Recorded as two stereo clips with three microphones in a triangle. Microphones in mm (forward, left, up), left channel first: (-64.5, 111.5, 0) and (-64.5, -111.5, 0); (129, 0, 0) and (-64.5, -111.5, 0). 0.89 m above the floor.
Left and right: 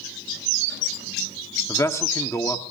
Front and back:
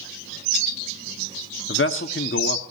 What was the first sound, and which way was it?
A man speaking, 15° left.